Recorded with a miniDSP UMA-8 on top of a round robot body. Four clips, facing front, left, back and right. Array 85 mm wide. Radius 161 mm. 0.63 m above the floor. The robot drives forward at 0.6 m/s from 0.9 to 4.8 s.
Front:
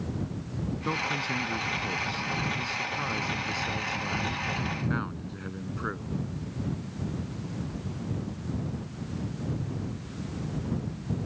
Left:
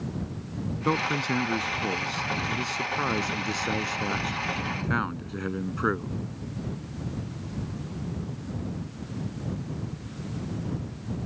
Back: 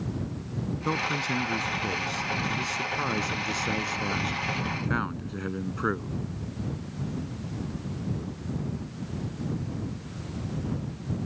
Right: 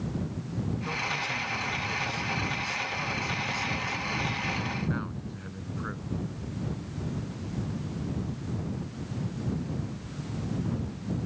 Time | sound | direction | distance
0.8 | a man speaking | 100° left | ?